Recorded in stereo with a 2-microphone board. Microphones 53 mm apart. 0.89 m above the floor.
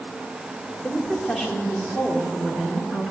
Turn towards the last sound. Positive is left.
turn(degrees=-30)  # may be behind; listen again after turning